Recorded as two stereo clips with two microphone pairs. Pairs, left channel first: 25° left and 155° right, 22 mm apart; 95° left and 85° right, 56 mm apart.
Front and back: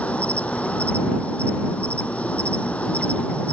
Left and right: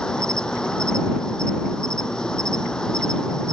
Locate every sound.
0.0 s an insect: 20° left